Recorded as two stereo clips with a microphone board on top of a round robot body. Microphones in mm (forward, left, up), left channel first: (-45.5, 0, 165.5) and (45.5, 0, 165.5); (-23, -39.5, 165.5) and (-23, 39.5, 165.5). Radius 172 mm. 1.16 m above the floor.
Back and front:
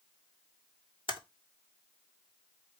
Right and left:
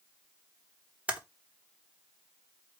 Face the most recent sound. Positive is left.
turn(degrees=165)